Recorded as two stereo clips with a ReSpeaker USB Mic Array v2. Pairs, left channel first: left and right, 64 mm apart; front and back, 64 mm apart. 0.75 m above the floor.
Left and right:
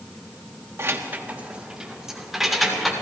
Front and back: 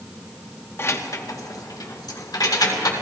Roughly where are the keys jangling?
Ahead right.